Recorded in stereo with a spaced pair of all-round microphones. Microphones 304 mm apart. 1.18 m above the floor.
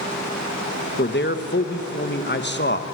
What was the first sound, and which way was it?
A man speaking, 35° left (ahead or behind).